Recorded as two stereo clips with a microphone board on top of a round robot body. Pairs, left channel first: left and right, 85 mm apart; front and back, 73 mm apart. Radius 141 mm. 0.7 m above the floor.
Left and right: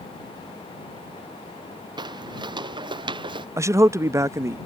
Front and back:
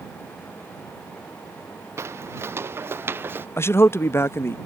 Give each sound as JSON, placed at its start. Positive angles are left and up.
{"t": 2.0, "sound": "footsteps", "azimuth_deg": -125}
{"t": 3.6, "sound": "a man speaking", "azimuth_deg": -45}